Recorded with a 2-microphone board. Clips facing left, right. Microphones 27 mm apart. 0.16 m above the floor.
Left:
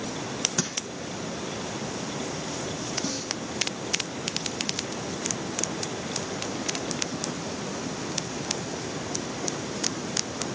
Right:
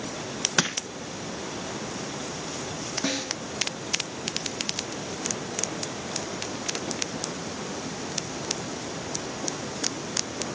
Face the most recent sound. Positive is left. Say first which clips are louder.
# right 3 dB
turn(degrees=-60)  # may be behind; listen again after turning